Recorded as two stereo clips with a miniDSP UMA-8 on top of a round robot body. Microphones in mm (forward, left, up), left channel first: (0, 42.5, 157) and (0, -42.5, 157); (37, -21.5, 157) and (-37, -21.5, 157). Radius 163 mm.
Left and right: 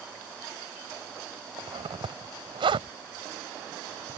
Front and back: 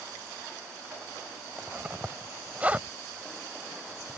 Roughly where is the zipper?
Right.